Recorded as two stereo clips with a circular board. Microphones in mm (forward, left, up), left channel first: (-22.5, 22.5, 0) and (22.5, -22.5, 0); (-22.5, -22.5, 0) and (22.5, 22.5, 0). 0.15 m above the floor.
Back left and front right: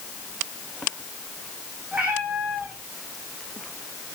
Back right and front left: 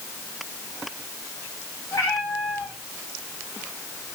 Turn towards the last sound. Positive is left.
turn(degrees=-110)